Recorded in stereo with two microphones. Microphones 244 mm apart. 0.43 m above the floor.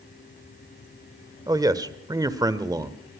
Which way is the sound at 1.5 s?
15° right (ahead or behind).